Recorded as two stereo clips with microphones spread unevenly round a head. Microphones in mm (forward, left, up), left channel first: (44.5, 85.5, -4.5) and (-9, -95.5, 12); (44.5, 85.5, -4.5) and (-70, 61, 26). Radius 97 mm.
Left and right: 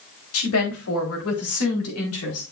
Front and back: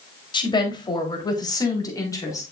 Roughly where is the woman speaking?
Ahead left.